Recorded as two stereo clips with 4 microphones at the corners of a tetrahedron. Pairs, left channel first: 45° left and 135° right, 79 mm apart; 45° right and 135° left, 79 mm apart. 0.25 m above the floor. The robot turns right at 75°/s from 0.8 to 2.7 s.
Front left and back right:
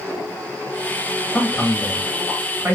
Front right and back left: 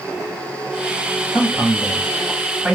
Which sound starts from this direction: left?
A man speaking, at 1.3 s.